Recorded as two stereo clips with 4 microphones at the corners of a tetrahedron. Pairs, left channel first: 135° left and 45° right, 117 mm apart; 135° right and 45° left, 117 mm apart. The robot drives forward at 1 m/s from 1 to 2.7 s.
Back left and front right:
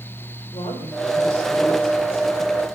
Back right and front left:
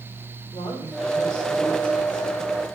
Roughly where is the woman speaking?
Behind.